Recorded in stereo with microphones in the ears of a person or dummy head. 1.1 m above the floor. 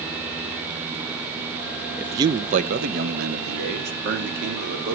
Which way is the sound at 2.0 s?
Centre (ahead or behind).